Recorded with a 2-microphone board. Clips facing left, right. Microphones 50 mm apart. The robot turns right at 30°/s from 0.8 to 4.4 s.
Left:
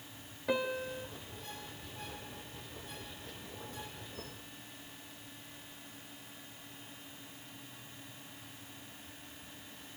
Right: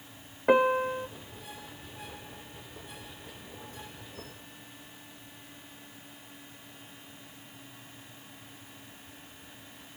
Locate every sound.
0.5 s a piano: 45° right (ahead or behind), 0.8 m; by 1.1 s 35° right (ahead or behind), 0.8 m